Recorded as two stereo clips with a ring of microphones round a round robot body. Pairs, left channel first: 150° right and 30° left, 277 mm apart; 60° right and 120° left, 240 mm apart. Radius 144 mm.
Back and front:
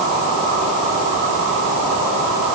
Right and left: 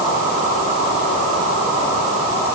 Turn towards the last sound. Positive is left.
No sound to turn to.